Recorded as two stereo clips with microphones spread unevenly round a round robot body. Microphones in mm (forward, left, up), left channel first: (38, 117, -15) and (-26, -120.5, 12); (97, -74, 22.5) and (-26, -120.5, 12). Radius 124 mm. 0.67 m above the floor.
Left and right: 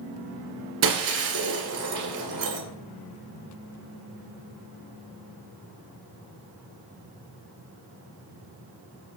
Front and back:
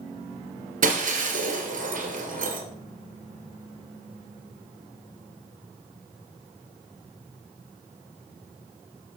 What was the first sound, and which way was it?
Breaking glass, 140° right.